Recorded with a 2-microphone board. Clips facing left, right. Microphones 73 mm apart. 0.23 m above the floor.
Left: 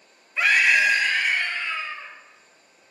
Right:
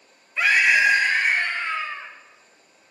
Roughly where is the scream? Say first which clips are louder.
Right 1 dB; centre.